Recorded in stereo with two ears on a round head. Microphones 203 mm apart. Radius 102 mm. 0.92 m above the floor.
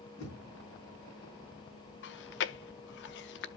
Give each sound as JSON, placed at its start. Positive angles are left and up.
{"t": 0.2, "sound": "knocking", "side_deg": 70, "distance_m": 7.0}
{"t": 2.0, "sound": "chewing", "side_deg": 50, "distance_m": 0.5}